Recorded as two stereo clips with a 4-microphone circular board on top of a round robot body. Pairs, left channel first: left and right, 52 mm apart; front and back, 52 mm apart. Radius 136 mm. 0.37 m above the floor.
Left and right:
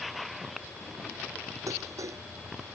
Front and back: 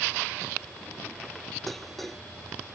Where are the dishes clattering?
85° right.